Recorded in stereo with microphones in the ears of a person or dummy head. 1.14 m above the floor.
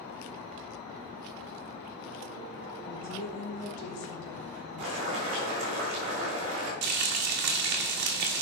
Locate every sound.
2.9 s a woman speaking: 35° left (ahead or behind), 1.4 m; by 5.5 s 85° left, 4.5 m
4.8 s boiling: 40° right (ahead or behind), 3 m
6.8 s frying: 60° right (ahead or behind), 1.6 m